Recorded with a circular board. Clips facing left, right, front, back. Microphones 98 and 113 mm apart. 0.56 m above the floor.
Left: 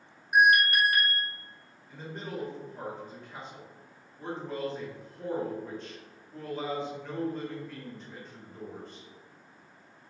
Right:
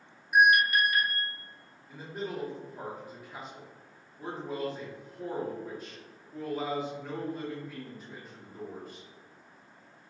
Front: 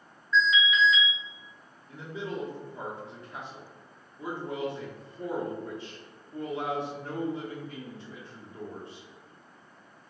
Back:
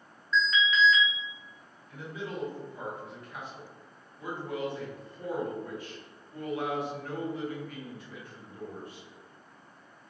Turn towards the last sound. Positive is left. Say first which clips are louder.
# right 2 dB, front 2 dB
turn(degrees=-10)